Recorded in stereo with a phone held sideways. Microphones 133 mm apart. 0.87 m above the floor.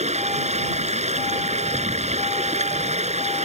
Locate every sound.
0.0 s running water: 60° right (ahead or behind)